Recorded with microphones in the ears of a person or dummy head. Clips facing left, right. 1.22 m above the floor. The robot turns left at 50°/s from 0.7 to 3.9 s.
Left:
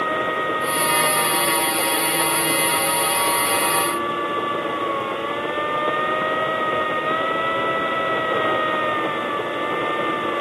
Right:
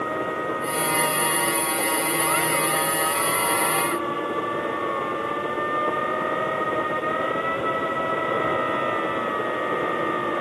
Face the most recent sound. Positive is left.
No sound to turn to.